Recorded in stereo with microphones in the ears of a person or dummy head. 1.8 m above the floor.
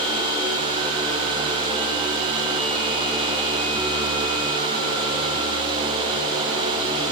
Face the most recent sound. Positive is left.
No sound to turn to.